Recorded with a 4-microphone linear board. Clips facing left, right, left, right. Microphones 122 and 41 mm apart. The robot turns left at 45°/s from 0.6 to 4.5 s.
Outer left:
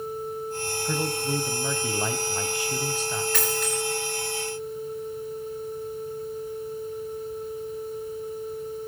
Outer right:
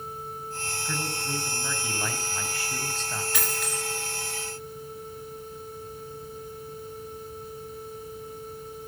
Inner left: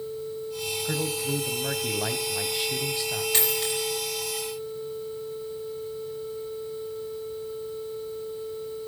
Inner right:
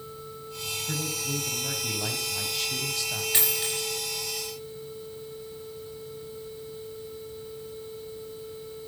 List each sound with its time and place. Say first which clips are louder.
0.8 s a man speaking: outer left 6 dB, inner left 4 dB; 25° left (ahead or behind), 1.0 m; by 3.2 s 5° left (ahead or behind), 1.0 m
3.3 s a dropped coin: outer left 5 dB, inner left 3 dB; 10° right (ahead or behind), 9.5 m; by 3.8 s 10° left (ahead or behind), 9.5 m